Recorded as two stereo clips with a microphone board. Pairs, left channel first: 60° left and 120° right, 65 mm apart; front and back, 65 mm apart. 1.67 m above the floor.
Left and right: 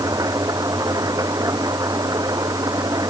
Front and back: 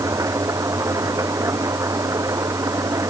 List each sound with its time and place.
0.0 s an engine running: 145° right